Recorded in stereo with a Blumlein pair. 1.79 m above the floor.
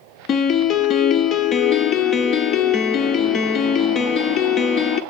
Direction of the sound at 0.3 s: 30° left.